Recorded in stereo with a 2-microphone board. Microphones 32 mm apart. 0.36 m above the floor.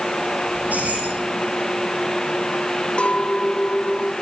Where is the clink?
35° left (ahead or behind), 1.0 m.